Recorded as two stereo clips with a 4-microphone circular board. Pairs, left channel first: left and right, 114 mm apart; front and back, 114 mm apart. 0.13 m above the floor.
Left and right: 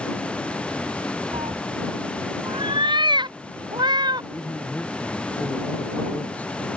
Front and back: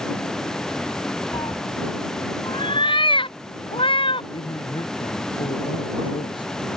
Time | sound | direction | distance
1.3 | a cat meowing | 50° right | ?
4.3 | a man speaking | 15° left | ?